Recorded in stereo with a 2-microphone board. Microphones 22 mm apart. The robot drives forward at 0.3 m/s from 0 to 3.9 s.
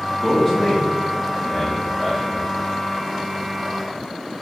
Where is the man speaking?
10° left (ahead or behind), 1.3 m; by 2.4 s 5° left (ahead or behind), 1.9 m.